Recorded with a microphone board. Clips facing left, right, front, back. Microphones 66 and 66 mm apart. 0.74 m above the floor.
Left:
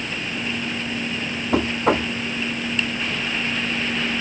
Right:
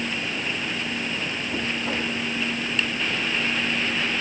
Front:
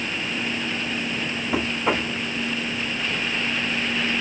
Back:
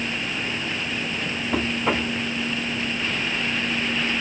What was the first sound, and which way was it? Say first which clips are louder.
Knocking: left 10 dB, even; 85° left.